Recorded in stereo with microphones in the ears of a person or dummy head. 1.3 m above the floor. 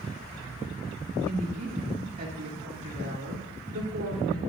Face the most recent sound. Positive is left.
turn(degrees=-55)  # may be behind; listen again after turning